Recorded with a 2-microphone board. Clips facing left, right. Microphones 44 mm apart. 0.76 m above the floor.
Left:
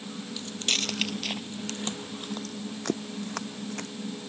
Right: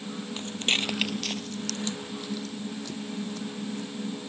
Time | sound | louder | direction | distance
0.4 | footsteps | right 3 dB | 40° right (ahead or behind) | ?